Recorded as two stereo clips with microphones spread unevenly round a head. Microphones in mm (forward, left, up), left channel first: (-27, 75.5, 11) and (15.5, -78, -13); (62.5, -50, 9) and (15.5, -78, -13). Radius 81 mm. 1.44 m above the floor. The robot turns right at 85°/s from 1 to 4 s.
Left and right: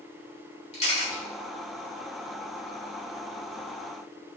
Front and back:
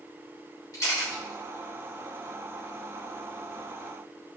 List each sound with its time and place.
0.7 s a camera shutter: 55° left, 3 m; by 1.2 s 70° left, 3 m